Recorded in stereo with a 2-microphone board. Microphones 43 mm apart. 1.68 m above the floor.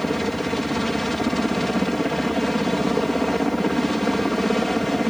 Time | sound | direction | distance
0.0 | a helicopter | 5° left (ahead or behind) | ?